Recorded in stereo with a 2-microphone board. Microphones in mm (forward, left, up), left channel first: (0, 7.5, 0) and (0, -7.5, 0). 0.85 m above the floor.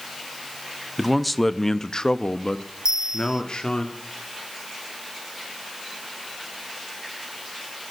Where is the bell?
50° right (ahead or behind), 1.5 m.